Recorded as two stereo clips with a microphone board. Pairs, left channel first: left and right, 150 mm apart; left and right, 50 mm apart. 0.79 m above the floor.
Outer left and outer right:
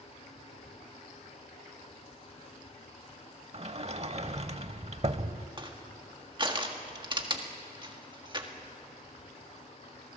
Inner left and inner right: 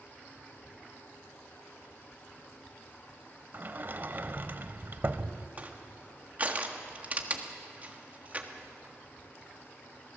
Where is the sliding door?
45° right (ahead or behind), 0.8 m.